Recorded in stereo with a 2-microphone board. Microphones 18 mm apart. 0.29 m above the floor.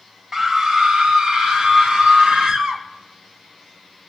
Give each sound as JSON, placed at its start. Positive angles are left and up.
{"t": 0.3, "sound": "a scream", "side_deg": -30, "distance_m": 1.1}